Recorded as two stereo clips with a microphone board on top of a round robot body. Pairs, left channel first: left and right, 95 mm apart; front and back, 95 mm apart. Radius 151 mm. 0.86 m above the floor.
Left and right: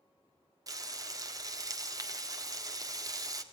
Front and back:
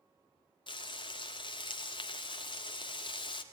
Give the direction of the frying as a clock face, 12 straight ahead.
1 o'clock.